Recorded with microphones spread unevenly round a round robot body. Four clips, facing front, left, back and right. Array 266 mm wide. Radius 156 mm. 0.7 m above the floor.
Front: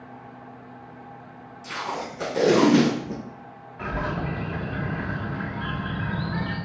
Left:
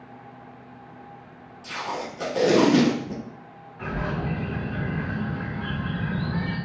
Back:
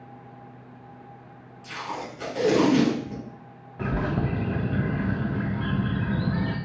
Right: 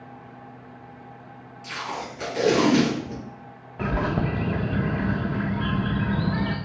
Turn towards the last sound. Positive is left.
turn(degrees=-125)